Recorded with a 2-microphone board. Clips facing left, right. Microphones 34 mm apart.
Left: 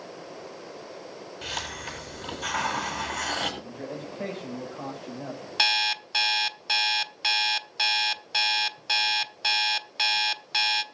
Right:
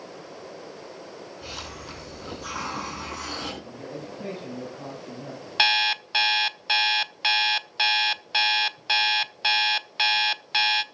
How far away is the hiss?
About 7.5 m.